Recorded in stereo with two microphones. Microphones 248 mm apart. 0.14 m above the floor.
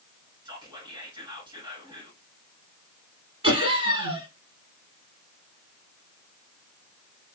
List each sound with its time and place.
0.5 s whispering: 20° right (ahead or behind), 1.3 m
3.4 s laughter: 20° right (ahead or behind), 1.6 m